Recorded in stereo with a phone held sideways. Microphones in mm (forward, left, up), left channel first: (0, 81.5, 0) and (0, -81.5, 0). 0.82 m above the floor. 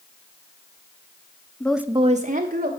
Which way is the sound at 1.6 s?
10° left (ahead or behind).